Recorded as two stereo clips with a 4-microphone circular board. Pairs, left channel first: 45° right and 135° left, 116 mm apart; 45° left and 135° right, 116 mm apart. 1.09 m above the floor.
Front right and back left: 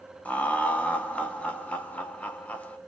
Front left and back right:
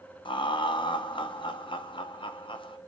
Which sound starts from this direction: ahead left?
Laughter, at 0.2 s.